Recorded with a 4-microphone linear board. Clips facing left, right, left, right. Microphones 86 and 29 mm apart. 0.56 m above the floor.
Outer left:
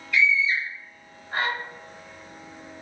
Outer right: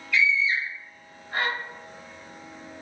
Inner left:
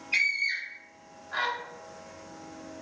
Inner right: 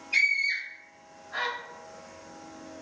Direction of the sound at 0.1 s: 30° left (ahead or behind).